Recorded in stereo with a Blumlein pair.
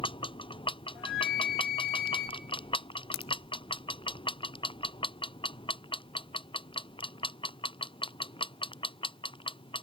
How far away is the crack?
About 0.7 m.